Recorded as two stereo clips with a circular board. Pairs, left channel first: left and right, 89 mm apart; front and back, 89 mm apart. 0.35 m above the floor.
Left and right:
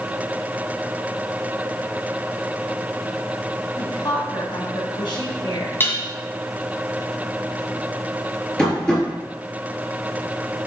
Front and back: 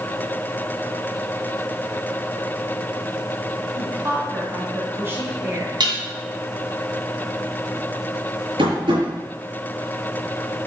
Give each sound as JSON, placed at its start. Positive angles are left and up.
{"t": 3.8, "sound": "a woman speaking", "azimuth_deg": 120, "distance_m": 3.5}
{"t": 5.8, "sound": "dishes clattering", "azimuth_deg": 155, "distance_m": 2.0}
{"t": 8.6, "sound": "tapping", "azimuth_deg": 170, "distance_m": 4.0}